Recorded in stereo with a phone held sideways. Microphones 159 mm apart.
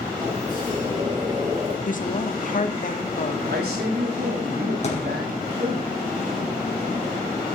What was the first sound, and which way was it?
A sliding door, 30° right (ahead or behind).